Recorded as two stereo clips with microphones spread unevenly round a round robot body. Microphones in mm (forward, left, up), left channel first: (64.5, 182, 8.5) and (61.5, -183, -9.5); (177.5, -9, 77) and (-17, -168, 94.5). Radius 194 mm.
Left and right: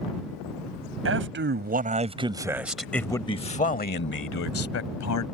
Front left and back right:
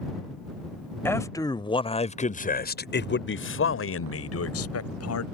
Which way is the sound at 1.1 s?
40° right.